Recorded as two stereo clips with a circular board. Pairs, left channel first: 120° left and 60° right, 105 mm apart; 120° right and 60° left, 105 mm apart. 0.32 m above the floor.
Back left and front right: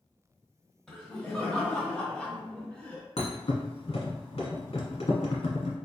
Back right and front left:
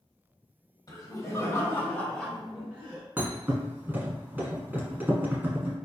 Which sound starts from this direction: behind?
Laughter, at 0.9 s.